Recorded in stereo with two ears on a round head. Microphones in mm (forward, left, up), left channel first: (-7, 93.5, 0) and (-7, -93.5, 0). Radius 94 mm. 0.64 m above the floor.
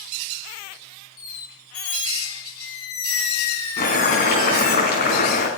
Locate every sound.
1.2 s a squeak: 80° left, 1.9 m
3.8 s boiling: 50° left (ahead or behind), 4 m